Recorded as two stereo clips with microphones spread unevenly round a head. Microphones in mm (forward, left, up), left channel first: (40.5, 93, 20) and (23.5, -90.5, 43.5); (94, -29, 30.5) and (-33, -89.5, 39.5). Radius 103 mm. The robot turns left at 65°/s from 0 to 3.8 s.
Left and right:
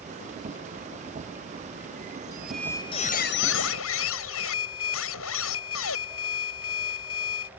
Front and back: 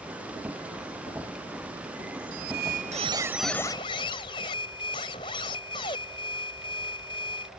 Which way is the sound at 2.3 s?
170° right.